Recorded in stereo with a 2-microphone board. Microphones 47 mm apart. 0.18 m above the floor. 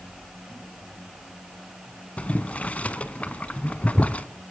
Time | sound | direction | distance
2.2 | boiling | 30° left (ahead or behind) | 0.5 m